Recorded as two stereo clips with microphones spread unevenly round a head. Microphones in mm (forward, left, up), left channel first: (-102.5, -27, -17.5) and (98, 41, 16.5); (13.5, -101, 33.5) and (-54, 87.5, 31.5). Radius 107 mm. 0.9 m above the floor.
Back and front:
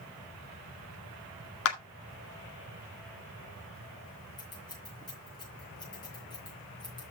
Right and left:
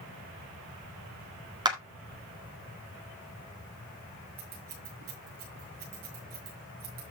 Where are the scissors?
125° left, 6.5 m.